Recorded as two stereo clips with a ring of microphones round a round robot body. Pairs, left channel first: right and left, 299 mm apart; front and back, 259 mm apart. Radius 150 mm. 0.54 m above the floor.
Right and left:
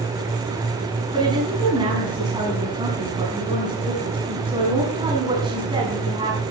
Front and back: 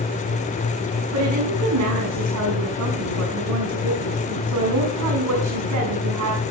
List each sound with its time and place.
1.1 s a woman speaking: 165° left, 5.5 m